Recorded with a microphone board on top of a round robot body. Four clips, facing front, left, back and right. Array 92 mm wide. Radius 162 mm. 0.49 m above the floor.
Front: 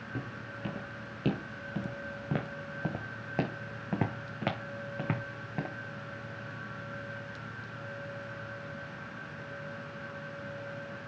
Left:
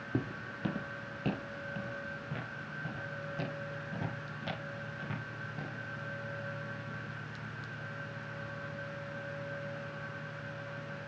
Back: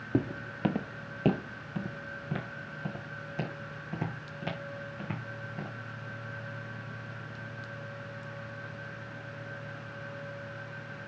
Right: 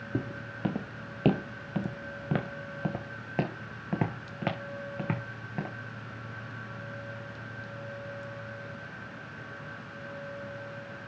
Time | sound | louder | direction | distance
0.1 | footsteps | right 2 dB, back 11 dB | straight behind | 0.9 m